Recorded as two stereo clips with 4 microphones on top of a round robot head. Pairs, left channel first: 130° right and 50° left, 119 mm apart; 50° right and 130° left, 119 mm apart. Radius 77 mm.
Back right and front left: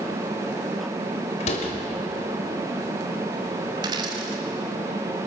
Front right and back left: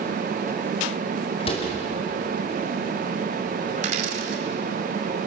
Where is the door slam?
95° right, 2.5 m.